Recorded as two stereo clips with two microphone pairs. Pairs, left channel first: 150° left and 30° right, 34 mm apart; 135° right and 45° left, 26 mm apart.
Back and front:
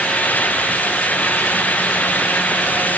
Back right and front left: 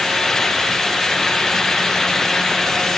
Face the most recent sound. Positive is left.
No sound to turn to.